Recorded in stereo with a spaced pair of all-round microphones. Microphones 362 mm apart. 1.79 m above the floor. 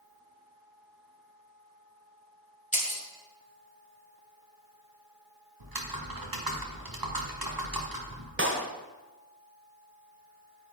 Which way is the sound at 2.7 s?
20° left (ahead or behind).